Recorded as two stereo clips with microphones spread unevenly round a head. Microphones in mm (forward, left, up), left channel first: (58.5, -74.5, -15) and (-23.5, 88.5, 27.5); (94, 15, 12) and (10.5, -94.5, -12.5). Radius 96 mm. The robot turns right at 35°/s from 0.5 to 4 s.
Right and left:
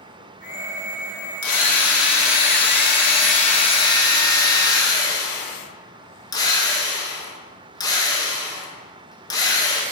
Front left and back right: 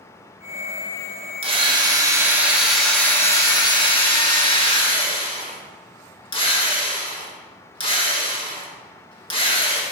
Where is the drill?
80° right, 1.9 m; by 9.8 s 10° left, 1.9 m.